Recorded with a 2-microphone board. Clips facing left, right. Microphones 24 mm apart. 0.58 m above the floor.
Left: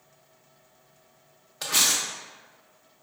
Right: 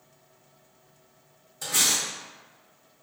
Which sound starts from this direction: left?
Cutlery clinking, at 1.6 s.